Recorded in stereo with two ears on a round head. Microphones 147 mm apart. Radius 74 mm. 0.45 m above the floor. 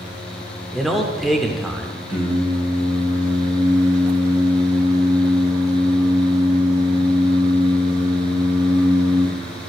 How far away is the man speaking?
About 1.0 m.